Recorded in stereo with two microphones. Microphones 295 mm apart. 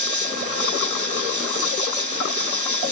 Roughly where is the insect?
Left.